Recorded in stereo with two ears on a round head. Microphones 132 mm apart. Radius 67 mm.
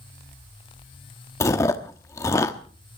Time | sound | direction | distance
1.4 | chewing | 20° left (ahead or behind) | 1.0 m